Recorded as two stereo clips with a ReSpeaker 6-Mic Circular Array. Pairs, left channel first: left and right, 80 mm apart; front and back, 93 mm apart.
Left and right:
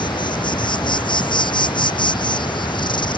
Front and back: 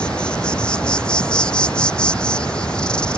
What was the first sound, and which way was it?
An insect, 80° left.